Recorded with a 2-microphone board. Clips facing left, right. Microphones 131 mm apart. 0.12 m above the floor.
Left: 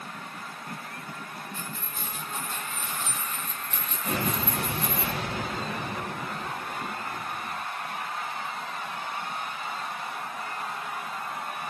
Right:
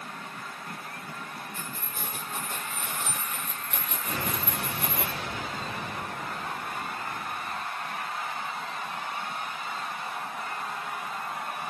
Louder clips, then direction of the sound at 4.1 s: Left 5 dB; 70° left (ahead or behind).